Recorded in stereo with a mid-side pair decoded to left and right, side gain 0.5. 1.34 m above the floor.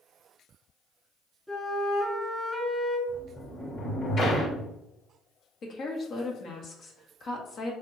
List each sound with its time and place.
1.5 s a flute: 5° left, 1.7 m
3.1 s a sliding door: 55° left, 1.6 m
5.6 s a woman speaking: 55° left, 1.3 m